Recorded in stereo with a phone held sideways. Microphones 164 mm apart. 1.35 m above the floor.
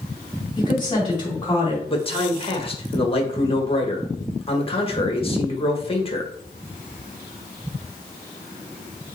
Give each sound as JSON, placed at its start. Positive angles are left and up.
{"t": 0.6, "sound": "a woman speaking", "side_deg": 25, "distance_m": 3.5}
{"t": 1.9, "sound": "a man speaking", "side_deg": 35, "distance_m": 1.4}